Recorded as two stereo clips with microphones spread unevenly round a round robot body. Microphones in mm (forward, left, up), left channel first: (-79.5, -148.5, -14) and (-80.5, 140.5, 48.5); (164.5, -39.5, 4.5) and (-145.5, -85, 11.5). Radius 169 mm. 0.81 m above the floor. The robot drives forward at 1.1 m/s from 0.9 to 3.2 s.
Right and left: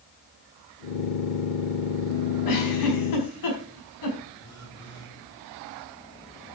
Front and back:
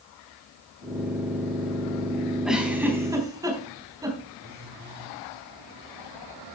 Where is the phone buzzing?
115° right, 9.5 m.